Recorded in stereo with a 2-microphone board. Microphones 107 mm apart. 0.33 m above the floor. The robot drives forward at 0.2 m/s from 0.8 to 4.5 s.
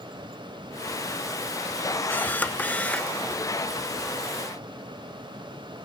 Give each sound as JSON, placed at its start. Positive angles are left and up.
{"t": 2.1, "sound": "a camera shutter", "side_deg": 15, "distance_m": 0.6}